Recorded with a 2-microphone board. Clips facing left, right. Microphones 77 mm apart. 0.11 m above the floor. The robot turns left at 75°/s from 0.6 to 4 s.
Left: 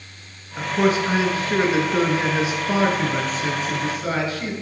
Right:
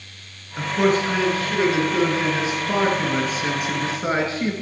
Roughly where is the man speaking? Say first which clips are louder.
Even; centre.